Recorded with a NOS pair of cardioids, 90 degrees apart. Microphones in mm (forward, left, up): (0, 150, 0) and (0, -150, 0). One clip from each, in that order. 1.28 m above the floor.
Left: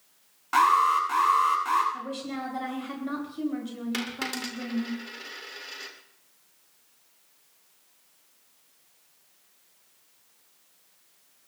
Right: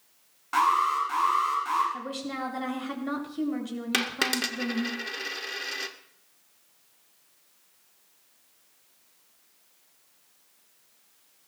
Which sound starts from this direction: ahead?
An alarm, at 0.5 s.